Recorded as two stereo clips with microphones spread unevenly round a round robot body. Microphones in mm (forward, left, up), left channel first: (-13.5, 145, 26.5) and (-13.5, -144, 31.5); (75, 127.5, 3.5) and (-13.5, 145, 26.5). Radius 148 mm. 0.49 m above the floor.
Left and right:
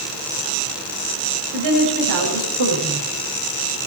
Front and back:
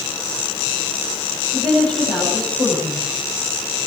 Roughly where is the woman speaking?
Behind right.